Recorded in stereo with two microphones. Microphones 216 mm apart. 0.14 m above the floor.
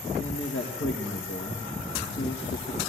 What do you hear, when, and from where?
0.2 s a man speaking: 70° left (ahead or behind), 4 m